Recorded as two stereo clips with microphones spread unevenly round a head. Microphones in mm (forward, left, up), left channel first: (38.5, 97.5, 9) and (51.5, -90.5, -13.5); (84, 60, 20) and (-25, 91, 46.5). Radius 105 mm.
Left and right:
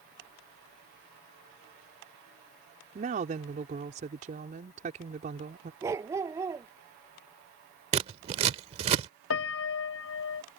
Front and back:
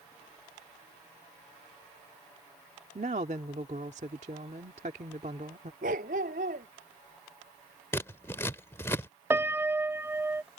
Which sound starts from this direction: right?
Scissors, at 7.9 s.